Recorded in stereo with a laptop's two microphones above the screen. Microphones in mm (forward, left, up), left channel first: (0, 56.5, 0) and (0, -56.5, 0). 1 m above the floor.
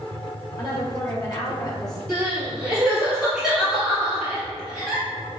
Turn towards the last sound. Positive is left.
turn(degrees=0)  # may be behind; listen again after turning